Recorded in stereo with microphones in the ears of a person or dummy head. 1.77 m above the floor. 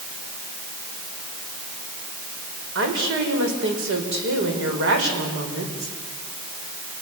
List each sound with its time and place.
2.8 s a woman speaking: 85° right, 5.5 m